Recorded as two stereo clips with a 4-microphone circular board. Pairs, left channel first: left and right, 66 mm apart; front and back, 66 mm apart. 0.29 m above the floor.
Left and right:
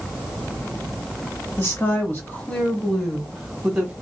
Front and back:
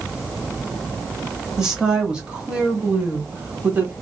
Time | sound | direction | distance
1.6 | a woman speaking | 105° left | 1.7 m